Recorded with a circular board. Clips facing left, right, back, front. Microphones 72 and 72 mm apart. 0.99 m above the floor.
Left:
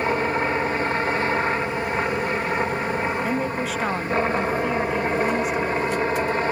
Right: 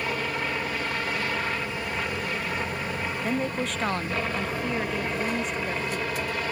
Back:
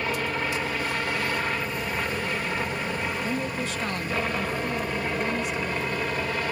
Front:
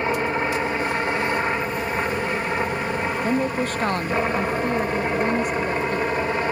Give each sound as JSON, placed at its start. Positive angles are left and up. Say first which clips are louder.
{"t": 0.0, "sound": "a helicopter", "louder": "left 7 dB, front 5 dB", "azimuth_deg": 50}
{"t": 3.2, "sound": "a woman speaking", "louder": "left 3 dB, front 7 dB", "azimuth_deg": 5}